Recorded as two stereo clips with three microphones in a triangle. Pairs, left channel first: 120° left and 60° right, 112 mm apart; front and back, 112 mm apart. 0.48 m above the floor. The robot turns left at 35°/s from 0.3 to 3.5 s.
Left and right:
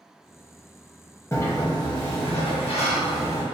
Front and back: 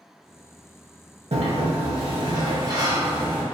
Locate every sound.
1.3 s a sliding door: straight behind, 0.6 m; by 3.5 s 105° left, 0.6 m